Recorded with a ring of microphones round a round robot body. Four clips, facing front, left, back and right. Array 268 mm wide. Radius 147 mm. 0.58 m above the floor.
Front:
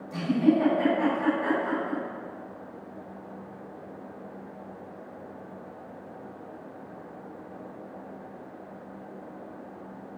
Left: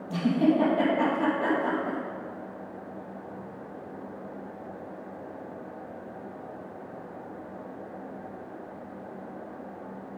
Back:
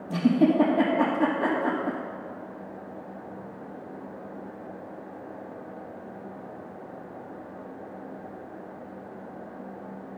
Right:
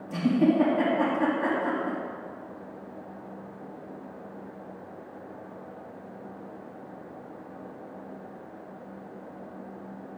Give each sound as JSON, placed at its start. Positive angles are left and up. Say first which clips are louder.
{"t": 0.1, "sound": "a giggle", "louder": "right 1 dB, back 2 dB", "azimuth_deg": 165, "distance_m": 3.5}